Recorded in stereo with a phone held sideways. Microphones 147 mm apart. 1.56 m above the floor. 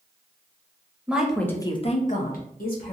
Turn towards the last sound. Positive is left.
turn(degrees=80)